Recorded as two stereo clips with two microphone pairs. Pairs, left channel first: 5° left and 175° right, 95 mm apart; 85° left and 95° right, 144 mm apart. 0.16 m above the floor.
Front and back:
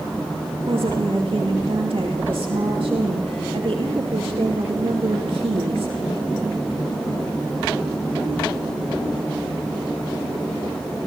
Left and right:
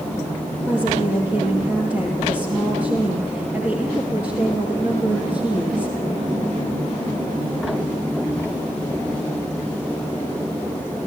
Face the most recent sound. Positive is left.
turn(degrees=-170)